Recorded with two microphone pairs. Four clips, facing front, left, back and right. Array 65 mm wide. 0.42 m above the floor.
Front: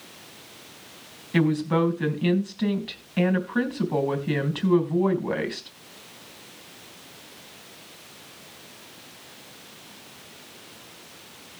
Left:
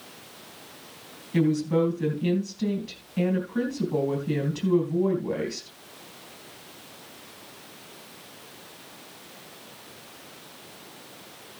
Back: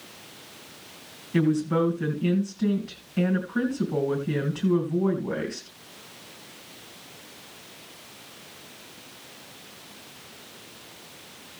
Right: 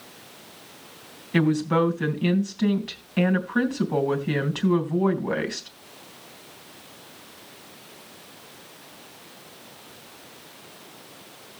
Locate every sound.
1.3 s a woman speaking: 50° right, 3 m